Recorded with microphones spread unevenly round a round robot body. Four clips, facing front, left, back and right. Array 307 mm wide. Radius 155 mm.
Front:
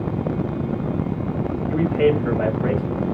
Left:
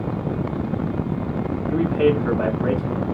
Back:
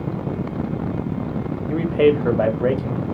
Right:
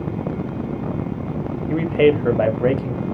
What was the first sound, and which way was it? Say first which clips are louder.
A man speaking: right 3 dB, back 2 dB; 125° right.